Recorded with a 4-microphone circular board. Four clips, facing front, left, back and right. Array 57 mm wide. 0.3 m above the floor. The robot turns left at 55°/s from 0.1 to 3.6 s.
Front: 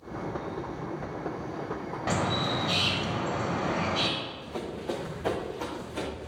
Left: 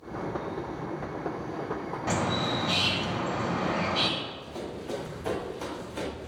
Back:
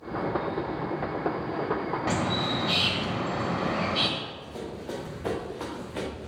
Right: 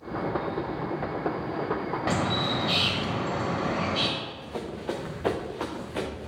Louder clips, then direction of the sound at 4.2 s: Right 2 dB, front 1 dB; 60° right.